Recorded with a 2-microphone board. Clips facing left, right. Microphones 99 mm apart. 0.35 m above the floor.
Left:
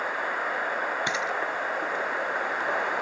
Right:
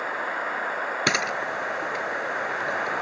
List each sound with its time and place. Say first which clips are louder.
1.1 s a camera shutter: right 2 dB; 75° right (ahead or behind)